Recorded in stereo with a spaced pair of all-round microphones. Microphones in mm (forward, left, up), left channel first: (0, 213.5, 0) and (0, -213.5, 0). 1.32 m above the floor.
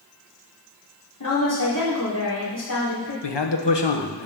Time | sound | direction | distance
1.2 | a woman speaking | 45° left (ahead or behind) | 3.5 m
3.2 | a man speaking | 70° left (ahead or behind) | 1.0 m